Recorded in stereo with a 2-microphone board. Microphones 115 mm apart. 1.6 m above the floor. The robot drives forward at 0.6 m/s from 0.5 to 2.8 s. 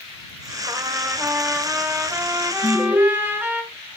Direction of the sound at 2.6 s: 25° right (ahead or behind).